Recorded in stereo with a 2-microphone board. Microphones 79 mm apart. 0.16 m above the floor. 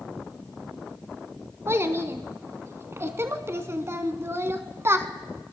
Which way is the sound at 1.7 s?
35° right (ahead or behind).